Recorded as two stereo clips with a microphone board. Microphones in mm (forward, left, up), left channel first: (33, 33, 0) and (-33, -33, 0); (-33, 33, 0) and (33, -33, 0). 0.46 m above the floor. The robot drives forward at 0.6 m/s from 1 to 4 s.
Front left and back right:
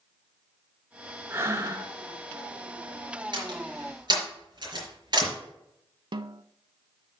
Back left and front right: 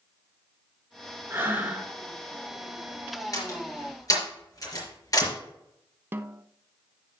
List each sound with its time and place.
1.3 s breathing: 90° right, 1.6 m; by 1.9 s 110° right, 1.7 m
3.3 s a door slam: 170° right, 4.5 m; by 5.3 s 175° right, 5 m
6.1 s a snare drum: 110° right, 0.5 m